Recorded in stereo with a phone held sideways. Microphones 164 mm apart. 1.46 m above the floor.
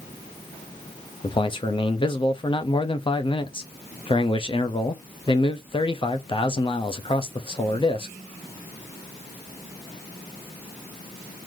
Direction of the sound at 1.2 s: 30° left (ahead or behind).